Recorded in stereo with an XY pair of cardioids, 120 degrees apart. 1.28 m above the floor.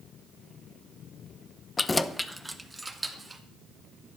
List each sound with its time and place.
1.8 s keys jangling: 30° left, 0.6 m; by 3.4 s 20° right, 2 m